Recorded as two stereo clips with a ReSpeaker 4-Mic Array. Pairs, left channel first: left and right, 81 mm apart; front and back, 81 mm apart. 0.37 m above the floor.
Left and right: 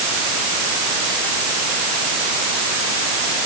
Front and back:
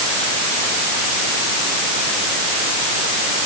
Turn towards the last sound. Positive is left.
No sound to turn to.